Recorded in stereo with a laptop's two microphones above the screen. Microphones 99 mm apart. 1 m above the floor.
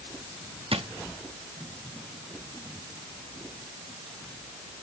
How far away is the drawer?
About 0.7 m.